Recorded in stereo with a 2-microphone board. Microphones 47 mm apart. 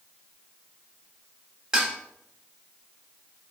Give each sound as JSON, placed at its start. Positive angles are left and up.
{"t": 1.7, "sound": "dishes clattering", "side_deg": -15, "distance_m": 0.8}